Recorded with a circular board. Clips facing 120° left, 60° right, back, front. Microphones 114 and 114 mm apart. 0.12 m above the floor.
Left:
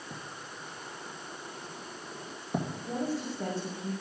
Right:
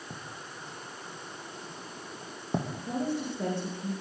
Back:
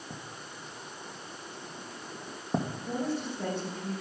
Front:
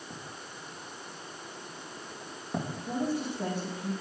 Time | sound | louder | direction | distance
0.1 | writing | even, even | 120° right | 3 m
2.9 | a woman speaking | right 2 dB, front 2 dB | 85° right | 6.5 m